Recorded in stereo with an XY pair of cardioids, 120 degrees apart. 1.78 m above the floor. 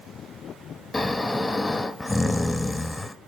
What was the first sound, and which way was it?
Snoring, 15° left.